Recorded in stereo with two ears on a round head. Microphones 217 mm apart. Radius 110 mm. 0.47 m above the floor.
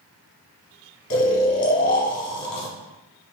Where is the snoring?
75° left (ahead or behind), 1.0 m.